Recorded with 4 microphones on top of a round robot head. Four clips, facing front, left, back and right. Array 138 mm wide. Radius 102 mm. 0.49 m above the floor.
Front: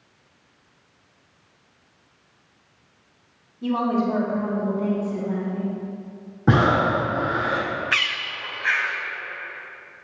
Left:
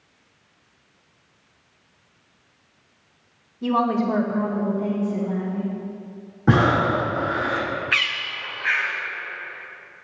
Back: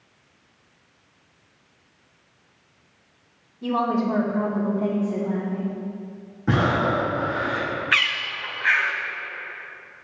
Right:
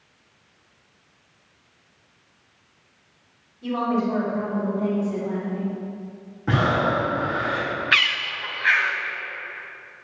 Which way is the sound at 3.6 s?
90° left.